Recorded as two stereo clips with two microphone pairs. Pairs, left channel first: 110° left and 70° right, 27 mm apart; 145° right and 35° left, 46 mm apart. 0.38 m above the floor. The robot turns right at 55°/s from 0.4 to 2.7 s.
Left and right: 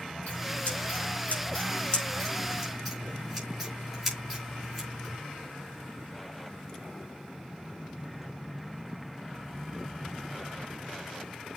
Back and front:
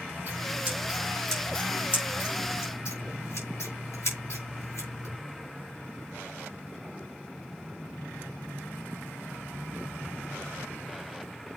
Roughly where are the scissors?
Left.